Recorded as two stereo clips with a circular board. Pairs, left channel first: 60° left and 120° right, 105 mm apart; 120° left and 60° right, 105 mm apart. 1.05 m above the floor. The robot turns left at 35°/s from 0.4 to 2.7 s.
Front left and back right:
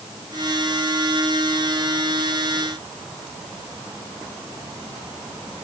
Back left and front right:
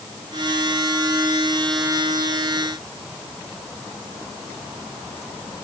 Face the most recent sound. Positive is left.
No sound to turn to.